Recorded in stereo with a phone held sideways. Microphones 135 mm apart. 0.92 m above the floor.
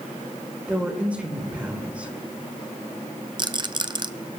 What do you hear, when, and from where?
0.7 s a woman speaking: 10° right (ahead or behind), 3.5 m
3.4 s a rattle: 35° right (ahead or behind), 0.6 m